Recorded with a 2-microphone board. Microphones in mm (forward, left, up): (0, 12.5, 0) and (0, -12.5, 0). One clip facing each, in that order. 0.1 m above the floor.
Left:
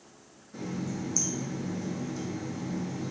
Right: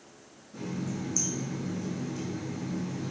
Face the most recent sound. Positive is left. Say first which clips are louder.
# even
turn(degrees=25)  # may be behind; listen again after turning